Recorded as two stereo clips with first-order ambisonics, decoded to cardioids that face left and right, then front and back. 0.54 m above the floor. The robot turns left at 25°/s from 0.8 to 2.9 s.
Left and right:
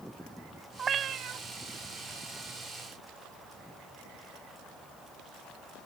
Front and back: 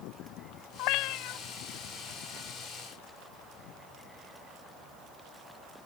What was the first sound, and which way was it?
A cat meowing, 25° right.